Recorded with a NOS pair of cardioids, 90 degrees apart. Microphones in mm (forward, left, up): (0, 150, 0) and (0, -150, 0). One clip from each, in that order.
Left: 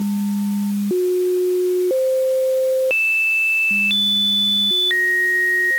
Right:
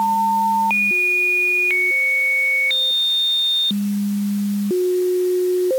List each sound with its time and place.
Only background noise.